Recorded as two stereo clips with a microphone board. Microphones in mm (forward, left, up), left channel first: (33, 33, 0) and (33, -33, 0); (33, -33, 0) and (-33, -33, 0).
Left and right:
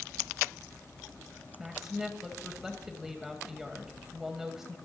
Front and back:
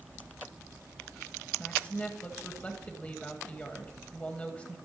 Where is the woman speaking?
15° right, 1.5 m.